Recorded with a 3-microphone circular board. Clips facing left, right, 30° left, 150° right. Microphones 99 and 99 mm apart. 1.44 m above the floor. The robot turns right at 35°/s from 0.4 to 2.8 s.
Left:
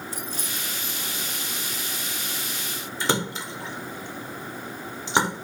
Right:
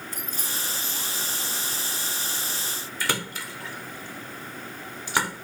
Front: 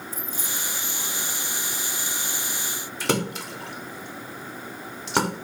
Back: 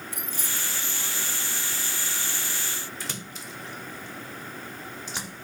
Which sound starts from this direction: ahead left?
A splash, at 3.0 s.